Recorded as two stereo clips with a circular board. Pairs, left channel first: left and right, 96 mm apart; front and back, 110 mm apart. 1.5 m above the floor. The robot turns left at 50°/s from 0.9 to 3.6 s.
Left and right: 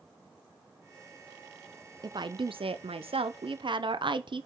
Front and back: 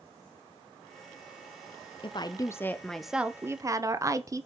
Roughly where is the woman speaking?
Ahead right.